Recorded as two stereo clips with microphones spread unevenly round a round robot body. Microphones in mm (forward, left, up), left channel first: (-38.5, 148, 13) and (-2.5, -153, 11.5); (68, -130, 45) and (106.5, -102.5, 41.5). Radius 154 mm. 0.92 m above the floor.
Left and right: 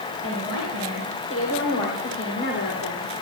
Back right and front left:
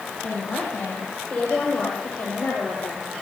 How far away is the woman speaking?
About 5.5 m.